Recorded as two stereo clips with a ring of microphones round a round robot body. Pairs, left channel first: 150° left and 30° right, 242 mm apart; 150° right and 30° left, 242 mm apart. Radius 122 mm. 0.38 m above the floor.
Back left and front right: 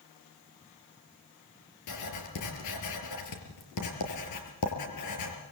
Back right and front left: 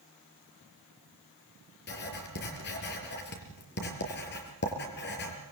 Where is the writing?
160° left, 5 m.